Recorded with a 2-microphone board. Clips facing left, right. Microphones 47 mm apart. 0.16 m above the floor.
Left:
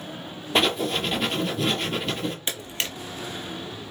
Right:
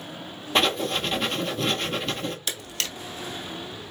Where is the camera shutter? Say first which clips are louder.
Left 2 dB; 30° left (ahead or behind), 0.9 m.